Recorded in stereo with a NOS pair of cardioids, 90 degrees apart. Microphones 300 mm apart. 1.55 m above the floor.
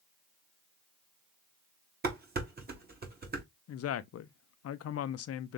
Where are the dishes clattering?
35° right, 1.9 m.